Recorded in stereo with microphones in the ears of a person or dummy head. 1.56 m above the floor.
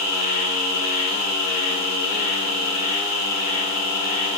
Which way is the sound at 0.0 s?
45° left (ahead or behind).